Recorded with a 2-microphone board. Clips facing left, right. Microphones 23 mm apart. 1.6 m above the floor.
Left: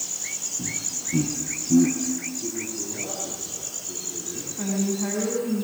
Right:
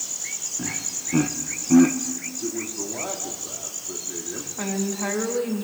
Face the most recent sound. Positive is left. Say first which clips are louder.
# left 1 dB
turn(degrees=-40)  # may be behind; listen again after turning